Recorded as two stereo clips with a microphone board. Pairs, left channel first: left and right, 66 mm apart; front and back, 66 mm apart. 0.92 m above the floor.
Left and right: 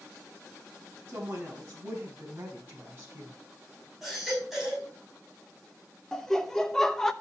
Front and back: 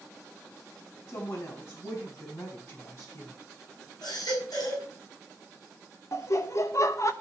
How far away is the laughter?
About 1.0 m.